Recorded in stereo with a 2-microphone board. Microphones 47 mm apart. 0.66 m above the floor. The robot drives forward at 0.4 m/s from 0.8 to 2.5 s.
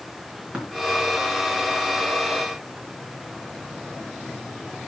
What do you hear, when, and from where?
0.5 s tapping: 25° right (ahead or behind), 4 m